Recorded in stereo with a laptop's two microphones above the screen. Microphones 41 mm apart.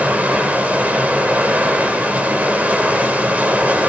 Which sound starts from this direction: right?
Running water, at 0.0 s.